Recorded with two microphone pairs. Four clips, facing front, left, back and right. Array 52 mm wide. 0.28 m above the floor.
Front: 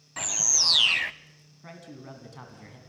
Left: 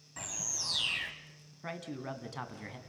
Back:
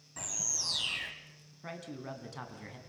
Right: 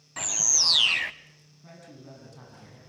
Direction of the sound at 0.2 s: 40° right.